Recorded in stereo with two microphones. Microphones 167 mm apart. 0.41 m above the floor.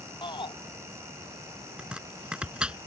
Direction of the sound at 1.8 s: 5° right (ahead or behind).